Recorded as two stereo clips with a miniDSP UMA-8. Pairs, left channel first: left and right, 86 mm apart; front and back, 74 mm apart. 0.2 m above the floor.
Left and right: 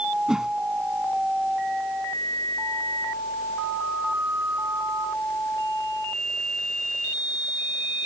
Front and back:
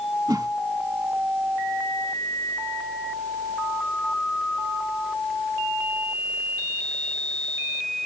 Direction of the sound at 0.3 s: 170° right.